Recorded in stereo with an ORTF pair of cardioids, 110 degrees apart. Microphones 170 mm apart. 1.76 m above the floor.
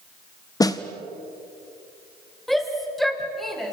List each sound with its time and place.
0.6 s a snare drum: 20° left, 1.5 m
2.5 s a shout: straight ahead, 6 m